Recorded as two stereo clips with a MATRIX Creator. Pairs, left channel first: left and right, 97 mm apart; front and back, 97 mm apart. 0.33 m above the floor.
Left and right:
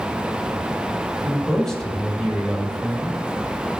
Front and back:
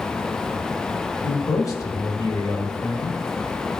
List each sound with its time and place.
1.2 s a man speaking: 5° left, 1.7 m